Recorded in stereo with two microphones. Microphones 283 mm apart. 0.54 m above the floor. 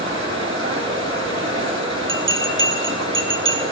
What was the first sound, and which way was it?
Running water, 45° right (ahead or behind).